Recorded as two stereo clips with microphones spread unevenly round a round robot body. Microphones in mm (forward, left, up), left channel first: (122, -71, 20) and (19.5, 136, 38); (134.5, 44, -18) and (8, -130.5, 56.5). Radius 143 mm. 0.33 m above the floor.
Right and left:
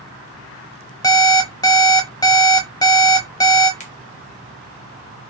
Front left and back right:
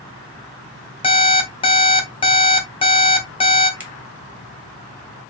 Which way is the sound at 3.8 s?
25° right.